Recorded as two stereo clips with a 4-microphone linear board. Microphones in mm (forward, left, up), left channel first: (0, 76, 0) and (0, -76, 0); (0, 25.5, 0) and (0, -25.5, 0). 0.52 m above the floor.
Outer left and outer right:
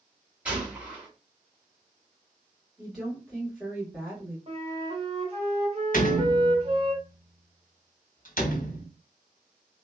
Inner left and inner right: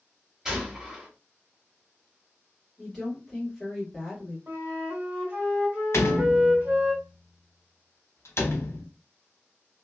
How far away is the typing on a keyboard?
No typing on a keyboard in this recording.